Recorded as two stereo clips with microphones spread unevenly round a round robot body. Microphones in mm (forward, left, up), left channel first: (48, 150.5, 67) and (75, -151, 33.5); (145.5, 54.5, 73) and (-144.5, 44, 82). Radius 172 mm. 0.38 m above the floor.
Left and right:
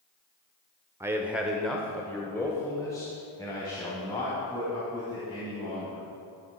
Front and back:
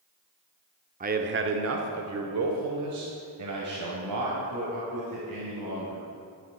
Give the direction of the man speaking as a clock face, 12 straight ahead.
5 o'clock.